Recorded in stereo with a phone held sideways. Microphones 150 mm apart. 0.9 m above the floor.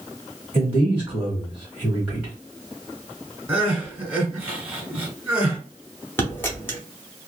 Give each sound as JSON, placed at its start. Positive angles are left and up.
{"t": 0.5, "sound": "a man speaking", "side_deg": -10, "distance_m": 1.4}
{"t": 3.5, "sound": "crying", "side_deg": -15, "distance_m": 1.3}
{"t": 6.2, "sound": "a dropped coin", "side_deg": 15, "distance_m": 0.9}